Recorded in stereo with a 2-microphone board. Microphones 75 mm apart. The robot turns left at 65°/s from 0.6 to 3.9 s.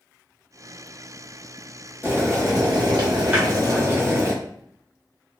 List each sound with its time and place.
2.0 s boiling: 25° right, 0.9 m; by 4.3 s 145° right, 0.9 m
3.3 s a snare drum: 25° right (ahead or behind), 1.3 m; by 3.5 s 15° right (ahead or behind), 1.3 m